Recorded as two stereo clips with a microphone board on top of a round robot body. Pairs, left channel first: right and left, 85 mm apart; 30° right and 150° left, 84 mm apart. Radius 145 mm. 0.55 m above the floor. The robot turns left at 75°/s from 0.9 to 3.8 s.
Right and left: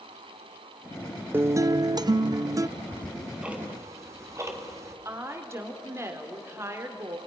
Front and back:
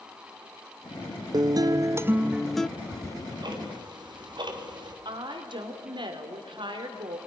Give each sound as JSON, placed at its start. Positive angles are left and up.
{"t": 1.3, "sound": "a guitar", "azimuth_deg": 150, "distance_m": 0.6}
{"t": 2.8, "sound": "ticking", "azimuth_deg": -145, "distance_m": 2.5}
{"t": 5.0, "sound": "a woman speaking", "azimuth_deg": 145, "distance_m": 2.5}